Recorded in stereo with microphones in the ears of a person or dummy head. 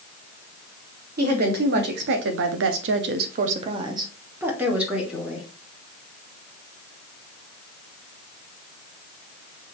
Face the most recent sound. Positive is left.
turn(degrees=0)  # may be behind; listen again after turning